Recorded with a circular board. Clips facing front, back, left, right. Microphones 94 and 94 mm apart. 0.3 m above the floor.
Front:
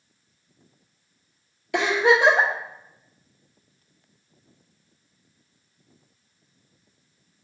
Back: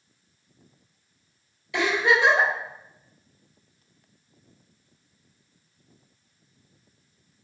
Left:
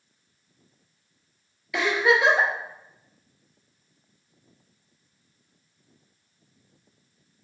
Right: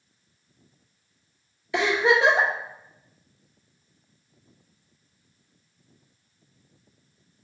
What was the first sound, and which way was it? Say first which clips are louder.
A giggle: front 3 dB, right 1 dB; 30° right.